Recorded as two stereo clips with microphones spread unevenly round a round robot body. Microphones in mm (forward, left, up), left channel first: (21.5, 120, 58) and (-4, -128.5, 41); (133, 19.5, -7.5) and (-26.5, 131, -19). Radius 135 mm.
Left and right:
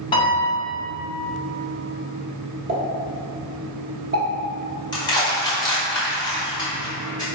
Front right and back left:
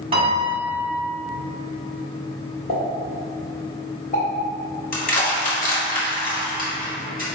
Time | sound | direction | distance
0.1 | a piano | 145° left | 1.3 m
2.7 | a pop | 80° right | 1.5 m
4.9 | crushing | 10° left | 1.4 m